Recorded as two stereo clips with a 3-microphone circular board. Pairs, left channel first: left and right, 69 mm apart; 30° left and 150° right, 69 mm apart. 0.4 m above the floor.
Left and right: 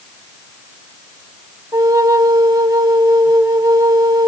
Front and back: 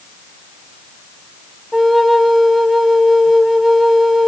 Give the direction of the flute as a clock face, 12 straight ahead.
2 o'clock.